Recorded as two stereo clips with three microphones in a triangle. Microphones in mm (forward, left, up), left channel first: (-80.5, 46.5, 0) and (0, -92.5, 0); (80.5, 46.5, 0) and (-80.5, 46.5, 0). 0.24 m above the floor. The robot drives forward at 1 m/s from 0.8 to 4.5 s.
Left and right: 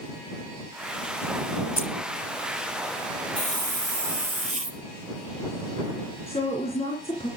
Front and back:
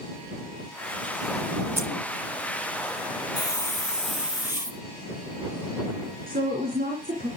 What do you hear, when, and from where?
1.8 s keys jangling: 105° left, 1.5 m; by 1.9 s 110° left, 1.5 m
3.4 s a hiss: 65° right, 1.8 m; by 4.8 s 105° right, 1.6 m
6.3 s a woman speaking: 170° left, 3 m